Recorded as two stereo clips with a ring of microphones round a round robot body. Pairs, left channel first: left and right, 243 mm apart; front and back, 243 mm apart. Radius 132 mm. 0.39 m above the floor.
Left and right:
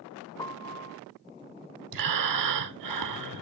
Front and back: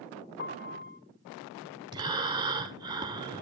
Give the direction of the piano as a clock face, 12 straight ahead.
11 o'clock.